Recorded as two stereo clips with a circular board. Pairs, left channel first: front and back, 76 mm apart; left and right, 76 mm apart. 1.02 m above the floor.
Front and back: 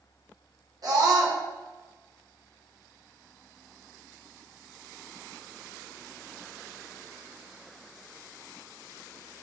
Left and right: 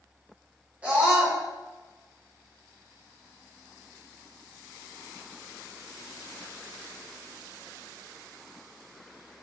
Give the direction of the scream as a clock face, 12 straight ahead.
5 o'clock.